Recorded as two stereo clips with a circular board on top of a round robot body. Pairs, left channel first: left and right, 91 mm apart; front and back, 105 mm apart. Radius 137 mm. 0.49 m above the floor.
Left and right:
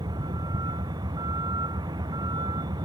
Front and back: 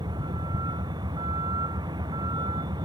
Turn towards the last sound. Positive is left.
turn(degrees=-135)